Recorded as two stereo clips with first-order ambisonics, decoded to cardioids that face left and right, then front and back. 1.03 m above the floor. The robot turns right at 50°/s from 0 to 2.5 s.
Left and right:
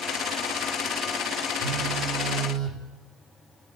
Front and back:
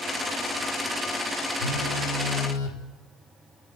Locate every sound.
1.6 s a phone buzzing: 30° right, 3.5 m; by 2.8 s 15° left, 3.5 m